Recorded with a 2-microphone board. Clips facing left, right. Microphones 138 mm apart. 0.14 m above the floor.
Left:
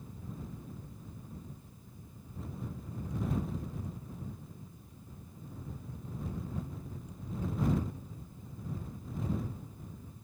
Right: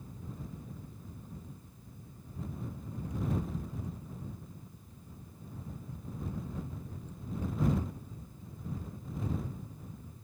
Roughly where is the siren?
No siren in this recording.